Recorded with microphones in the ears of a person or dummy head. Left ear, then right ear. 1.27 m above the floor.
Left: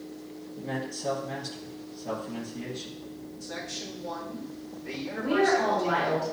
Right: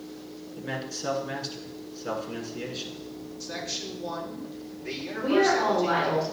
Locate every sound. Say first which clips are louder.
0.6 s a man speaking: right 1 dB; 50° right (ahead or behind), 2.5 m
3.4 s a man speaking: right 3 dB; 80° right, 3 m
5.2 s a woman speaking: right 1 dB; 75° right (ahead or behind), 3.5 m